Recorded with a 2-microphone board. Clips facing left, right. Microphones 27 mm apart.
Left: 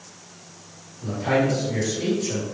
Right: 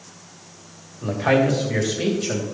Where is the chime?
I don't hear a chime.